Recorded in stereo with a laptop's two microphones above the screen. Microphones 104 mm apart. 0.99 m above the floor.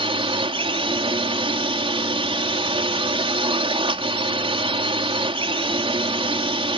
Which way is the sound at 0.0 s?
60° right (ahead or behind).